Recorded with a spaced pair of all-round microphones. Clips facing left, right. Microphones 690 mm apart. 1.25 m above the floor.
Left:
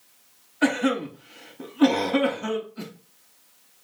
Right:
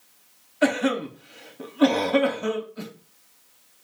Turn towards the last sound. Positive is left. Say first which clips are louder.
# even
turn(degrees=-5)  # may be behind; listen again after turning